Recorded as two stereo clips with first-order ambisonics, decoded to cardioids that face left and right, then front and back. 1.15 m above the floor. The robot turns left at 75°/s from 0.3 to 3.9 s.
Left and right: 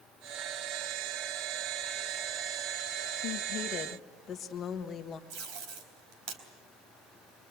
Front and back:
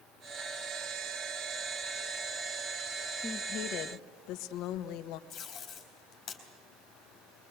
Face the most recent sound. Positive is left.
turn(degrees=-65)